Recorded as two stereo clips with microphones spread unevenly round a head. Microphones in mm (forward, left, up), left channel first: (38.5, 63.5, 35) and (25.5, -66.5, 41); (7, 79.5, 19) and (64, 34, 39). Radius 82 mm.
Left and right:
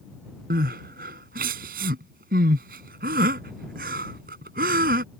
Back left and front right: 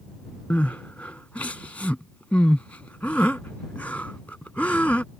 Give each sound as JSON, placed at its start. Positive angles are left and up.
{"t": 0.5, "sound": "crying", "azimuth_deg": -135}